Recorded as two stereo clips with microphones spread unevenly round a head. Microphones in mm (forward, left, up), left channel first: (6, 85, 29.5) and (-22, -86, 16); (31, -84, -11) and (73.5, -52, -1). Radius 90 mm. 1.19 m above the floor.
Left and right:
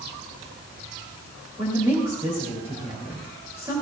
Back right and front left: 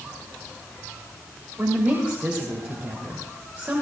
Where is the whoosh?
I don't hear a whoosh.